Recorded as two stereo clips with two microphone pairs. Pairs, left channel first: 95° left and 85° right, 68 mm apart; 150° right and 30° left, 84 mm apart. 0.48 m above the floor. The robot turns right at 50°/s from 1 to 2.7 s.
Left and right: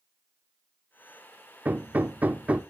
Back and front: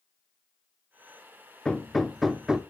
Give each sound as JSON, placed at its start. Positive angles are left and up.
{"t": 1.6, "sound": "hammering", "azimuth_deg": -90, "distance_m": 0.7}